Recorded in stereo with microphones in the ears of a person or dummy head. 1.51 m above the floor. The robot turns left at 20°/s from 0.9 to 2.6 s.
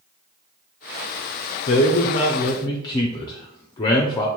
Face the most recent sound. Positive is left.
turn(degrees=25)  # may be behind; listen again after turning